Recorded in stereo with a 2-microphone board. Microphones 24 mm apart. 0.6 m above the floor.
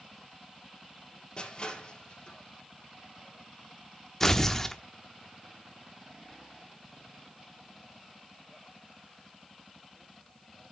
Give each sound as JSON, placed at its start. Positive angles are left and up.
{"t": 1.4, "sound": "crushing", "side_deg": 35, "distance_m": 3.0}
{"t": 4.2, "sound": "tearing paper", "side_deg": 15, "distance_m": 0.8}